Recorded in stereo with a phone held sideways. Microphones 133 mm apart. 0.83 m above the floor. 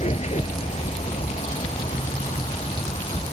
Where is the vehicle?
55° left (ahead or behind); by 3.3 s 50° left (ahead or behind).